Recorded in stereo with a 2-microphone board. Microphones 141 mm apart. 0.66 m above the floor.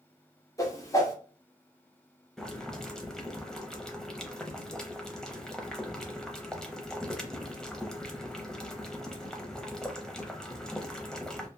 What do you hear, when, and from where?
0.6 s a whoosh: 20° left (ahead or behind), 0.8 m
2.4 s boiling: 5° left (ahead or behind), 0.6 m